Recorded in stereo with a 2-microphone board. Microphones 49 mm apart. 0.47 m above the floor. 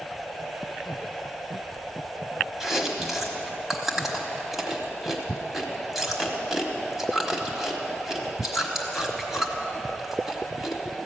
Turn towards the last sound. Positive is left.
turn(degrees=-5)  # may be behind; listen again after turning